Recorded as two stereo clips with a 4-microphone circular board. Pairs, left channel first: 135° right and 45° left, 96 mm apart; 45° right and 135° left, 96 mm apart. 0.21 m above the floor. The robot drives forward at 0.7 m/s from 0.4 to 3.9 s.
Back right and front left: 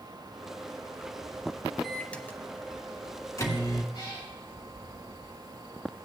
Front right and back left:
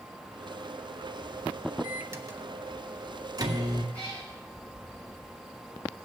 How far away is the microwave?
About 0.8 m.